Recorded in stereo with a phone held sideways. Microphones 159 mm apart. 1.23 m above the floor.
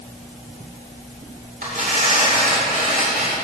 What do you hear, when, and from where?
1.6 s tearing paper: 55° right (ahead or behind), 2 m